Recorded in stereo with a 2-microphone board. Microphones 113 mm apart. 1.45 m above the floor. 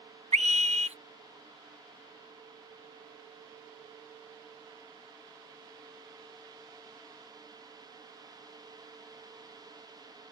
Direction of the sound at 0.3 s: 75° right (ahead or behind).